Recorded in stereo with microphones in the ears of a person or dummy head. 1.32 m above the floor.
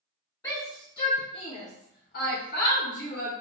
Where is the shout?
20° left (ahead or behind), 1.2 m; by 3.3 s 40° left (ahead or behind), 0.8 m.